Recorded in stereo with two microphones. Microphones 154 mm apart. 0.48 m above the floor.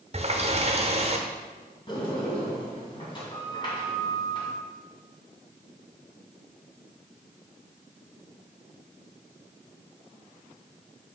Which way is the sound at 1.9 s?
30° left (ahead or behind).